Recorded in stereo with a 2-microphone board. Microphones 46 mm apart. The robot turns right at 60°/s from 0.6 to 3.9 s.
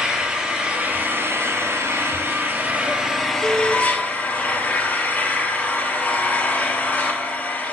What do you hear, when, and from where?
0.0 s an engine running: 155° right, 1.7 m; by 7.7 s 40° left, 1.7 m
3.4 s an alarm: centre (ahead or behind), 1.4 m; by 3.9 s 20° right (ahead or behind), 1.4 m